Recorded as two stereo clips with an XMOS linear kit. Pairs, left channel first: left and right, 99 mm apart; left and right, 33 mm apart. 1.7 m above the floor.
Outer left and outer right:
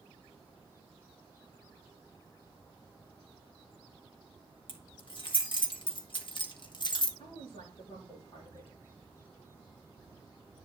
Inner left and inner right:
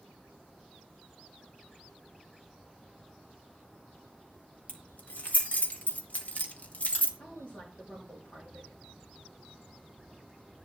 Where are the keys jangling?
50° left (ahead or behind), 1.8 m; by 7.1 s 45° left (ahead or behind), 1.1 m.